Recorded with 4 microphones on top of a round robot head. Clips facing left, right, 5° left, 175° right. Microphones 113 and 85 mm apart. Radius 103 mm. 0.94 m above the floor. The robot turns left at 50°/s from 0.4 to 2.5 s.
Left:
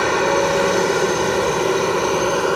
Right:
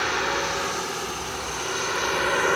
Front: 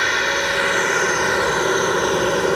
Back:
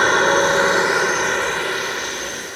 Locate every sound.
0.0 s a helicopter: 130° left; by 2.6 s 25° left